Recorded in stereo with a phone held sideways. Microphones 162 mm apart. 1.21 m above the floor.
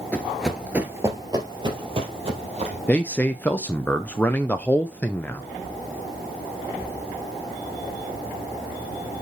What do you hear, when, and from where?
0.1 s running footsteps: 10° left (ahead or behind), 1.3 m; by 2.8 s 40° right (ahead or behind), 3 m
2.9 s a man speaking: 10° left (ahead or behind), 0.5 m